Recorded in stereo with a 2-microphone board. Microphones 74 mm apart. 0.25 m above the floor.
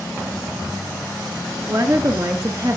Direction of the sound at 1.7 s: 45° right (ahead or behind).